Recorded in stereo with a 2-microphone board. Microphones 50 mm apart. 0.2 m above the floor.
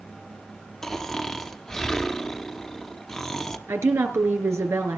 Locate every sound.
0.8 s snoring: 10° left (ahead or behind), 1.0 m
3.7 s a woman speaking: 65° right (ahead or behind), 3.5 m